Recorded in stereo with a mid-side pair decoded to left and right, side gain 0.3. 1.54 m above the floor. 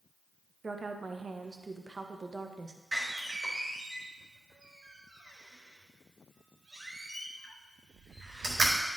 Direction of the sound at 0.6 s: 40° right.